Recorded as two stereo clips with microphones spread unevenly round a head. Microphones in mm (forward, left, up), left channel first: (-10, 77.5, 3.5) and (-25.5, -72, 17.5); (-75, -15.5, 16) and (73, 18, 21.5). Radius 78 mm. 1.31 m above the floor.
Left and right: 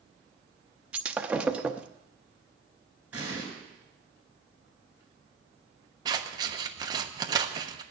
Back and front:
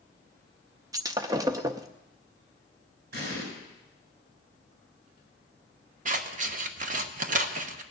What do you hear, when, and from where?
0.9 s breaking glass: 30° right, 0.6 m
3.1 s an explosion: 15° right, 7.5 m
6.0 s scissors: 30° right, 1.0 m